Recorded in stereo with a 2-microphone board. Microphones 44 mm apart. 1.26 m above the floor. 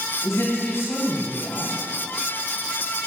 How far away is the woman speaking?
About 1.5 m.